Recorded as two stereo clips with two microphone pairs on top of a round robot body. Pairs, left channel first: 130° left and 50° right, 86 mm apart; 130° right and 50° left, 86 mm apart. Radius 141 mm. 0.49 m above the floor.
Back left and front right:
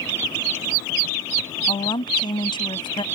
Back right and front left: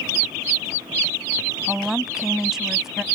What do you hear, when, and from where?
1.7 s a woman speaking: 135° left